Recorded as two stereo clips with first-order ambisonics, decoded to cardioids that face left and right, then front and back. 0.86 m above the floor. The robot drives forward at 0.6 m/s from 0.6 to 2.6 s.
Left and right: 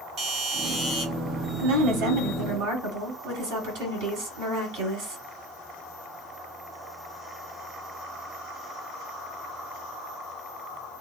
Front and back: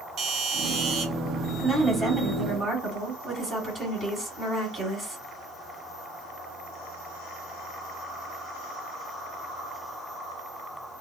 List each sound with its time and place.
0.2 s a doorbell: 135° right, 1.8 m; by 1.1 s 140° right, 1.9 m
1.6 s a woman speaking: 90° right, 1.9 m; by 5.2 s 110° right, 2 m